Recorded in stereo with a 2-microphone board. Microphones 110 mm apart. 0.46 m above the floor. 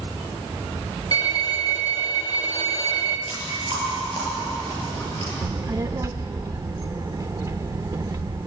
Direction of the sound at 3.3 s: 35° left (ahead or behind).